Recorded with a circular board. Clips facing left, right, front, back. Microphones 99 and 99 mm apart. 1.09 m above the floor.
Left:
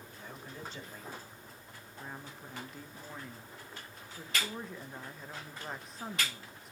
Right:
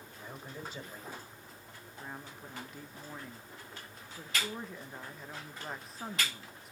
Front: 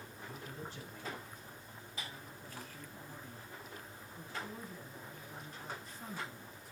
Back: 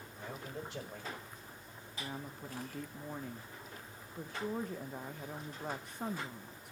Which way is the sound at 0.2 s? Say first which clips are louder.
Right 2 dB, back 4 dB; 170° right.